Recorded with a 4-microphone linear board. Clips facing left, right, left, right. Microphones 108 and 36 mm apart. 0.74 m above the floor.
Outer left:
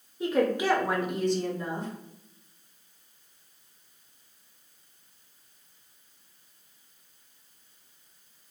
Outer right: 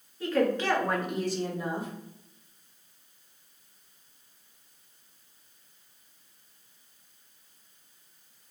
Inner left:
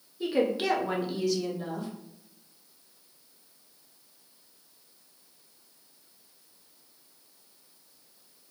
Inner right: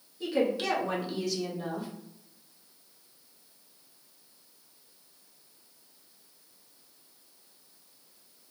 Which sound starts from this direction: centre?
A woman speaking, at 0.2 s.